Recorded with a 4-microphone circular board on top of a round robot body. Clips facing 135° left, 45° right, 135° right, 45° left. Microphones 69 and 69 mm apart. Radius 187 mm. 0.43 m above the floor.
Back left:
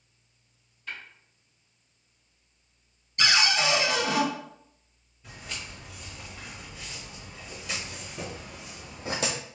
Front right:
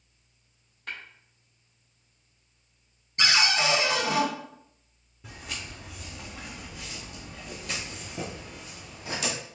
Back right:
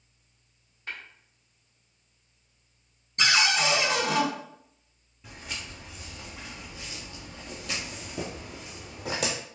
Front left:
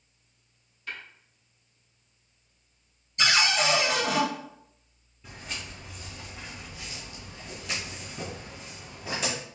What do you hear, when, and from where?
0.9 s tapping: 75° right, 1.8 m
3.2 s a cupboard door: 100° right, 1.9 m
5.2 s footsteps: 55° right, 2 m; by 9.3 s 175° right, 0.8 m